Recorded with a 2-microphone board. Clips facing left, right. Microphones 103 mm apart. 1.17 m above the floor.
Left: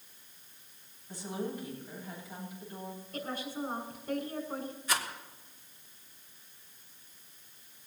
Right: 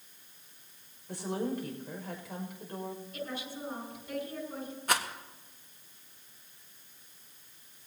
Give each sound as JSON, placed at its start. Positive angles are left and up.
{"t": 1.1, "sound": "a woman speaking", "side_deg": -70, "distance_m": 6.0}
{"t": 3.1, "sound": "a woman speaking", "side_deg": 45, "distance_m": 6.0}
{"t": 4.9, "sound": "a rattle", "side_deg": -60, "distance_m": 1.6}